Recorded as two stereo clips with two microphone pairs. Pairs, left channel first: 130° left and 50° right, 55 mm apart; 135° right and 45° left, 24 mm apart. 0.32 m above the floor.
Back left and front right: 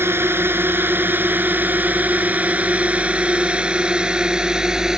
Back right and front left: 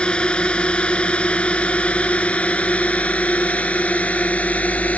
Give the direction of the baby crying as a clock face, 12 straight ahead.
I don't hear a baby crying.